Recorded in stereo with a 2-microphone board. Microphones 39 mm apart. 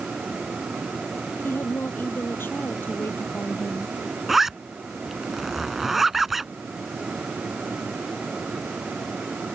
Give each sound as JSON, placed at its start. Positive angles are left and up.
{"t": 1.4, "sound": "a woman speaking", "side_deg": 85}
{"t": 4.3, "sound": "a zipper", "side_deg": -5}